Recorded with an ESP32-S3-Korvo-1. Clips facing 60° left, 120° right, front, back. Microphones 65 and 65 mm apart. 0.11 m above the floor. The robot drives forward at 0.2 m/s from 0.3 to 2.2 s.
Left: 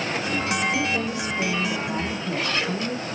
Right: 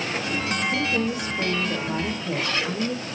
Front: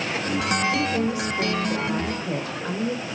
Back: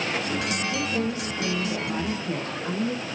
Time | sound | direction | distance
0.7 | a woman speaking | 75° right | 5 m